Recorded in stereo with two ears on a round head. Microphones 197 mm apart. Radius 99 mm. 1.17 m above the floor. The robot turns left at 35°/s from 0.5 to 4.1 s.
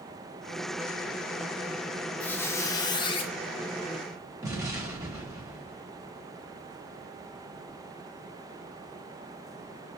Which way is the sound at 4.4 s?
15° right (ahead or behind).